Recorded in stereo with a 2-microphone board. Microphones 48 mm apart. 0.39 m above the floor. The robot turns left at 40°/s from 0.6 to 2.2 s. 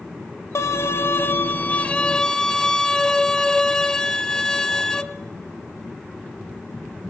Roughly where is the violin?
Left.